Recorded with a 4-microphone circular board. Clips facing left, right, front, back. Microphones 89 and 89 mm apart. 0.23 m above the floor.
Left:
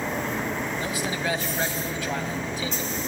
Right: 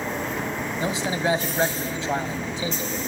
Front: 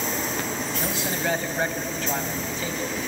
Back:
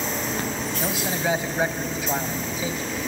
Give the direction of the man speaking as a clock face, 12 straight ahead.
4 o'clock.